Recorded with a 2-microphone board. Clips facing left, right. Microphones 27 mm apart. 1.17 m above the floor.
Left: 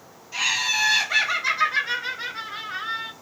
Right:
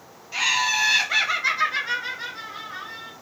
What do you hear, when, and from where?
0.3 s laughter: 25° right (ahead or behind), 1.3 m; by 3.1 s 55° left (ahead or behind), 0.6 m